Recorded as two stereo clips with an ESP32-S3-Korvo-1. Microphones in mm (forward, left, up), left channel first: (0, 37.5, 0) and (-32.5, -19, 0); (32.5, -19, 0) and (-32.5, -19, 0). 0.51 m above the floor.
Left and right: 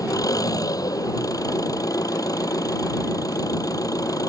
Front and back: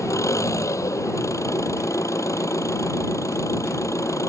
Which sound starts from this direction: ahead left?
An engine running, at 0.0 s.